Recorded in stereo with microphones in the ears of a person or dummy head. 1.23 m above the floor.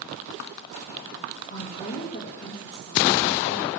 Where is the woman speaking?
50° left (ahead or behind), 2.0 m.